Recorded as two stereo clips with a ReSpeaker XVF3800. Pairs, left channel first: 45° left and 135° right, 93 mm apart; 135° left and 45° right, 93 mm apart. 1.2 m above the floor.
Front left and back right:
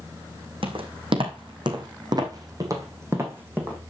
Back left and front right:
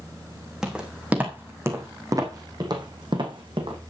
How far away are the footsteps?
About 4 m.